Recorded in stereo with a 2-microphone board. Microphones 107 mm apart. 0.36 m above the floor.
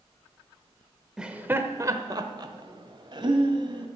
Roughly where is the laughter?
Centre.